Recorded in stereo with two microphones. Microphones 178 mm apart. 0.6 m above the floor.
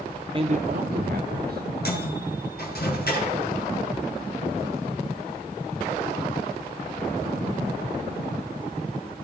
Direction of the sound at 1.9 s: 65° left (ahead or behind).